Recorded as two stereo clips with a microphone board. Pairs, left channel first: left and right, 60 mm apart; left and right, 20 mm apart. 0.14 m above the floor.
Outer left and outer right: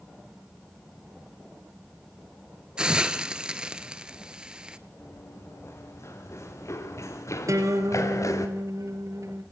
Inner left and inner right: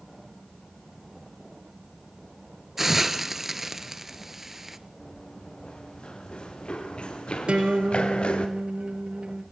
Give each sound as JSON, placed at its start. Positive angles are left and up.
{"t": 2.8, "sound": "a hiss", "side_deg": -15, "distance_m": 1.0}
{"t": 5.0, "sound": "running footsteps", "side_deg": 50, "distance_m": 6.5}
{"t": 7.5, "sound": "a guitar", "side_deg": -60, "distance_m": 3.5}